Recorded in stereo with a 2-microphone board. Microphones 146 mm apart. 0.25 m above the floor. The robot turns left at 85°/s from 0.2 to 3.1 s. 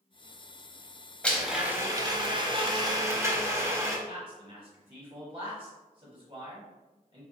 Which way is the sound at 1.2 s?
15° left.